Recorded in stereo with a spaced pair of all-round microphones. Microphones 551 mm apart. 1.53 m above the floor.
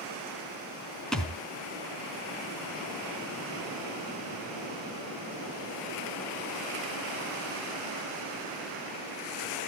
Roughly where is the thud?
Centre.